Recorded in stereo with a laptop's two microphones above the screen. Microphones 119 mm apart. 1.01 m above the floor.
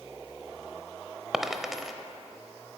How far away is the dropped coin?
About 0.9 m.